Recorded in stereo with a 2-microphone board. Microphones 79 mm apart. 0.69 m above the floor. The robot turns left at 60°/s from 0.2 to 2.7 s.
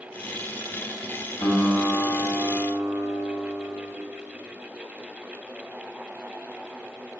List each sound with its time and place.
1.4 s a guitar: 70° left, 2.5 m; by 3.9 s 10° right, 2.5 m